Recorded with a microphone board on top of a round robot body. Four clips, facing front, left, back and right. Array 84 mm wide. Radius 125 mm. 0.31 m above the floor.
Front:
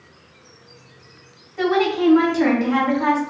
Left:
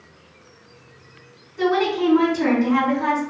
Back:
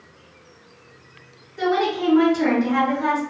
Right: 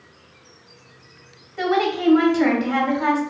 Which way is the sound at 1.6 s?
70° right.